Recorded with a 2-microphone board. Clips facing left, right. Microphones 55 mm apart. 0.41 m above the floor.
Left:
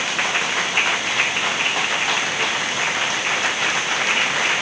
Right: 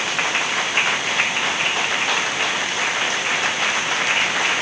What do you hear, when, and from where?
Only background noise.